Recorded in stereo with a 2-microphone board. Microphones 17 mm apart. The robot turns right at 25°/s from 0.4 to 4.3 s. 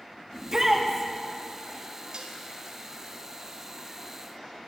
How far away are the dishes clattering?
About 1.1 m.